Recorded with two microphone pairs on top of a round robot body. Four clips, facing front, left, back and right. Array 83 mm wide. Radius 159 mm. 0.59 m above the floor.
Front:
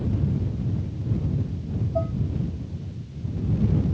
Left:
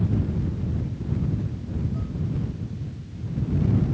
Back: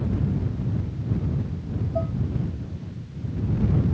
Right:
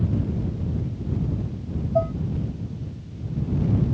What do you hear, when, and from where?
1.9 s dishes clattering: 85° right